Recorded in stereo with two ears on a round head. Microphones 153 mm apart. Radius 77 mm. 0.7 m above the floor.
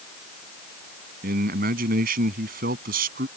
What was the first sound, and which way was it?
A man speaking, 60° right (ahead or behind).